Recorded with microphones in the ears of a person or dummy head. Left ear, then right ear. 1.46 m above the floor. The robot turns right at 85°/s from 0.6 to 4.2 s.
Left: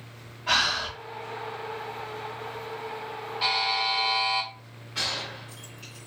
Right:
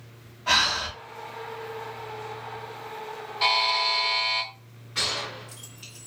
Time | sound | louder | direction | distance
0.5 | breathing | right 2 dB | 20° right (ahead or behind) | 1.1 m
3.4 | a buzzer | right 3 dB | 30° right | 0.7 m
5.0 | a gunshot | right 2 dB | 10° left (ahead or behind) | 1.0 m